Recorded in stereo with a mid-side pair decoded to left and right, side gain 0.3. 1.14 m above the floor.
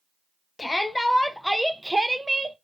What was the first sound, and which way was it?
A shout, 25° left.